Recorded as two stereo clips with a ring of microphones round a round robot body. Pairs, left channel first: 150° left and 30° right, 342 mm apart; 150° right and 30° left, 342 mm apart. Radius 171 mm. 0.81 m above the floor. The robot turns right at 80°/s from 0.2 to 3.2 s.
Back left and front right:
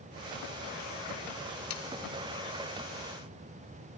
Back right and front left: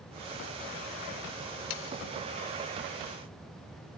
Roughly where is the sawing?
Behind.